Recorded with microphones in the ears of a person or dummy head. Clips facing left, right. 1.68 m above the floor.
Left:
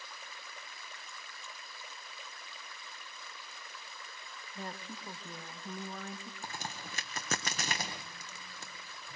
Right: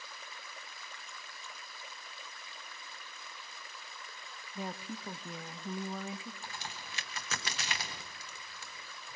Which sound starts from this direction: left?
A crack, at 6.4 s.